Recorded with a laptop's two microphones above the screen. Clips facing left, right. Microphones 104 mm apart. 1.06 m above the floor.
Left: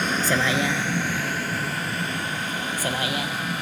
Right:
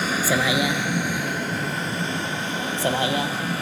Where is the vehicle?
5° right (ahead or behind); by 3.6 s 30° right (ahead or behind).